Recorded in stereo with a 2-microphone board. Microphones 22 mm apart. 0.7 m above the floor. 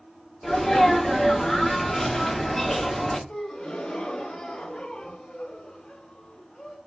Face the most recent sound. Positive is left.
turn(degrees=45)  # may be behind; listen again after turning